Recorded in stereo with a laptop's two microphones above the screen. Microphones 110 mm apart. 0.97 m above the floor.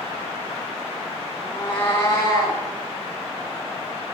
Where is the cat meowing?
40° left (ahead or behind), 1.4 m.